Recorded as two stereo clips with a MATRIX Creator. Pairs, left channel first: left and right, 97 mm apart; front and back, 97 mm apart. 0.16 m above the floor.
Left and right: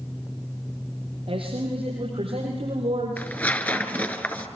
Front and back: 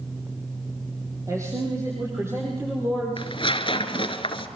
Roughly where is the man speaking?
Behind right.